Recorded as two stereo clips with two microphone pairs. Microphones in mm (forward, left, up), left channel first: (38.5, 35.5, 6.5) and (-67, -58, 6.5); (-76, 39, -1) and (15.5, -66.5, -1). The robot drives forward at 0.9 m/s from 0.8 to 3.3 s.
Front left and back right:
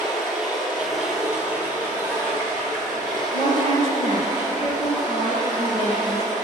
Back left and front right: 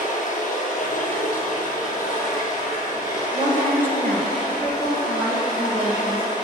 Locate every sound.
0.0 s running water: 130° left, 2.5 m; by 6.5 s 155° left, 4 m
3.3 s a woman speaking: 155° right, 2 m